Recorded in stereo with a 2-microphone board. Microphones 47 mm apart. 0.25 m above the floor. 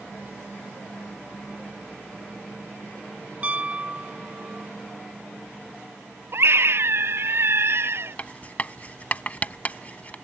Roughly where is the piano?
Right.